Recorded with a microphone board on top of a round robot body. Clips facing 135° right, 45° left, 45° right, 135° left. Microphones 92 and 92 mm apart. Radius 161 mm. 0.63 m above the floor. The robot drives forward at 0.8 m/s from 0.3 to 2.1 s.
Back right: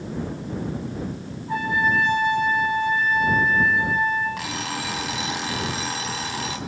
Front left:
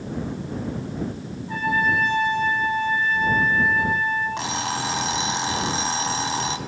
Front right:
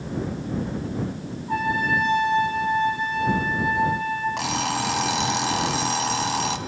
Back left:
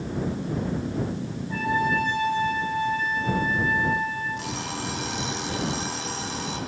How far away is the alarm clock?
About 3 m.